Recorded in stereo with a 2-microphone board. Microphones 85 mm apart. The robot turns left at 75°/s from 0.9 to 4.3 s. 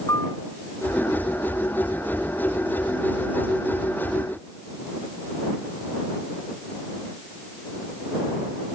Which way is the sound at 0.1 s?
35° left (ahead or behind).